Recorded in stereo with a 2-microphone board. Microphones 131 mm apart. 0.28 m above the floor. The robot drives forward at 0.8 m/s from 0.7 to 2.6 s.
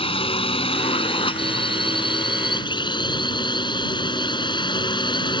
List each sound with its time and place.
0.0 s a drone: 40° left (ahead or behind); by 5.4 s 35° left (ahead or behind)